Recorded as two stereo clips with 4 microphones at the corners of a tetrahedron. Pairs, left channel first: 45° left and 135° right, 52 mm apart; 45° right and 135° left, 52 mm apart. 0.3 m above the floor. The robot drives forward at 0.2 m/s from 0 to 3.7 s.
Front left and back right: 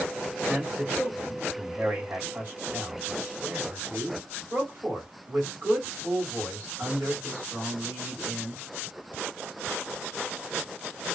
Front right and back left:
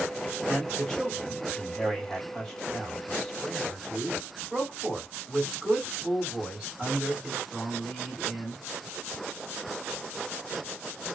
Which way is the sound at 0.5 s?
100° right.